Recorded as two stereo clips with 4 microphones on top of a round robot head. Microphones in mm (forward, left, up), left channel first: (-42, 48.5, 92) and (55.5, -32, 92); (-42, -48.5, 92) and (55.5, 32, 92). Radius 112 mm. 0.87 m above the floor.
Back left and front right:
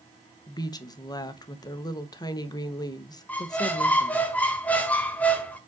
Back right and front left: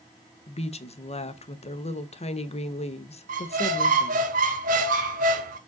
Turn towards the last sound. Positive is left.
turn(degrees=60)